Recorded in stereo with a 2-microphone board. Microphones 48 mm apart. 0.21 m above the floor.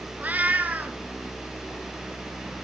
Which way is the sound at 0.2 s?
35° right (ahead or behind).